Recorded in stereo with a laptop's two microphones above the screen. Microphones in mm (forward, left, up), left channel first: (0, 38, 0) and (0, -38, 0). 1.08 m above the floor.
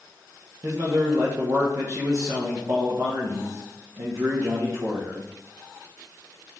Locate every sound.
0.6 s a man speaking: 45° right (ahead or behind), 0.7 m